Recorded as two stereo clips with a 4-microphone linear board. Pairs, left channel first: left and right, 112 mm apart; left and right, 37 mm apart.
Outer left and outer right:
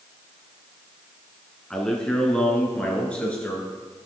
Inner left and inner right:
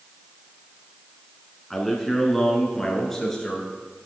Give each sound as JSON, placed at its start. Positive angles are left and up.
{"t": 1.7, "sound": "a man speaking", "side_deg": 5, "distance_m": 1.3}